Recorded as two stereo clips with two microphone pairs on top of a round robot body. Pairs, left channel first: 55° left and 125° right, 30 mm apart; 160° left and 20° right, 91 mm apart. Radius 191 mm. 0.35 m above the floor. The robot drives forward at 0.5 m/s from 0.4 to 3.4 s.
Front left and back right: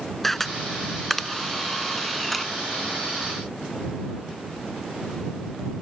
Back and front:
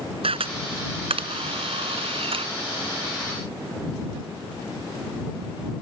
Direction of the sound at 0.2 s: 30° right.